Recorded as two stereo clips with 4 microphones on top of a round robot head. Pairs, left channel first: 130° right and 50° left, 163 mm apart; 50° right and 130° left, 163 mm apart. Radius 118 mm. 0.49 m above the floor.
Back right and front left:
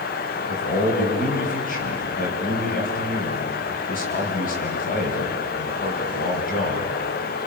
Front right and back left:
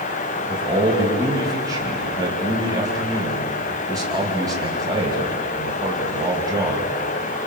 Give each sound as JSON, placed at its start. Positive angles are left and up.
{"t": 0.5, "sound": "a man speaking", "azimuth_deg": -165, "distance_m": 4.5}